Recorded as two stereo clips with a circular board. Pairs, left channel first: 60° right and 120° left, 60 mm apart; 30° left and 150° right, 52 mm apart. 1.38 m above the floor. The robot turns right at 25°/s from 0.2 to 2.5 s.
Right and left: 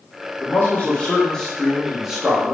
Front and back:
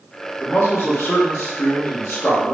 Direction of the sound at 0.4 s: 5° right.